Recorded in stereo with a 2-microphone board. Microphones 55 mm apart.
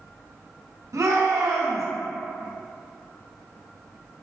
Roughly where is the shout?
Right.